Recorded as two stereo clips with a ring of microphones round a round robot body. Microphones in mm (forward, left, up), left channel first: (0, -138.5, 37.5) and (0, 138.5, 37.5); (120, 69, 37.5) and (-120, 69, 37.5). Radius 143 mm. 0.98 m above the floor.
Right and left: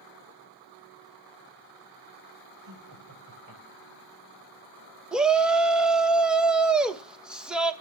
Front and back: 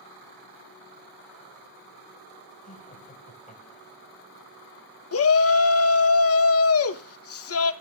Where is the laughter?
60° left, 5 m.